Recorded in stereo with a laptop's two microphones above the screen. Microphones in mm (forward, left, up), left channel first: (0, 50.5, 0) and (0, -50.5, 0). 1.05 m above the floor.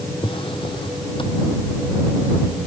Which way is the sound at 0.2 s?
55° left (ahead or behind).